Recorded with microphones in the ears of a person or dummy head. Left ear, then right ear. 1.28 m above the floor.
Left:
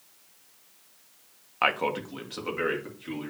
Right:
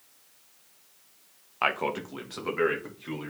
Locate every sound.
1.6 s a man speaking: 15° left (ahead or behind), 0.7 m; by 3.3 s 15° right (ahead or behind), 2.5 m